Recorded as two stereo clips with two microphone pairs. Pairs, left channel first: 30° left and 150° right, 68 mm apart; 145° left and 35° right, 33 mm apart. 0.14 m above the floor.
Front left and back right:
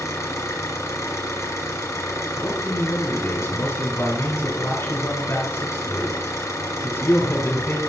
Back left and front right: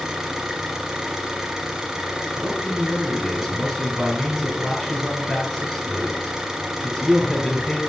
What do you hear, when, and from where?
0.0 s an engine running: 30° left, 1.7 m
2.4 s a man speaking: 65° left, 3 m